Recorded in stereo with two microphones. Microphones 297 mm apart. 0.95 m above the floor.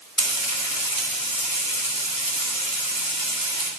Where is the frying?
85° left, 3 m.